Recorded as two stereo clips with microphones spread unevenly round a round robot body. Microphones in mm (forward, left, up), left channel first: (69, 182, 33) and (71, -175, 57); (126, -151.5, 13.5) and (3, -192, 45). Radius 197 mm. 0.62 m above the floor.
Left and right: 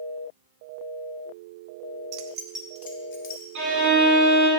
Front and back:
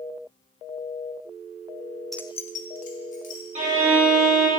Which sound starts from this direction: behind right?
A violin, at 3.5 s.